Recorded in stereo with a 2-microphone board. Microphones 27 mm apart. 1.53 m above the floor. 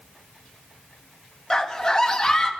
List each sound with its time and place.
1.5 s a scream: 15° left (ahead or behind), 1.9 m